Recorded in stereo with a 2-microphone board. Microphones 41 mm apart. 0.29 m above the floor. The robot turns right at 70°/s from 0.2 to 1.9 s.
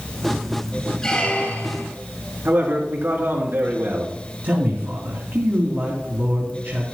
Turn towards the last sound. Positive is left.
turn(degrees=-60)  # may be behind; listen again after turning